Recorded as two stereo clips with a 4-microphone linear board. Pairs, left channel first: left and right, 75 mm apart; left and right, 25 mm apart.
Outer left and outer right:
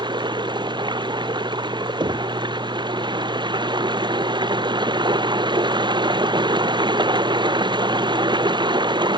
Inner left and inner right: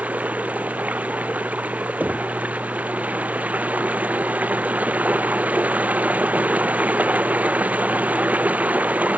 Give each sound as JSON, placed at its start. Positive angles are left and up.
{"t": 0.0, "sound": "running water", "side_deg": -80}
{"t": 2.0, "sound": "knocking", "side_deg": -80}